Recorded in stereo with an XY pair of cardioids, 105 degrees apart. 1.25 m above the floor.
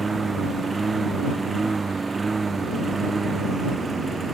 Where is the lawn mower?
30° right.